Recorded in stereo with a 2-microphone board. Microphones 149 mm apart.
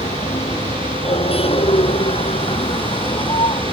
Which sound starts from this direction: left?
A vehicle, at 0.0 s.